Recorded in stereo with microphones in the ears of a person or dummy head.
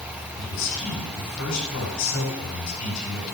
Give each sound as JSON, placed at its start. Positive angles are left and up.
{"t": 0.4, "sound": "a man speaking", "side_deg": 80, "distance_m": 9.0}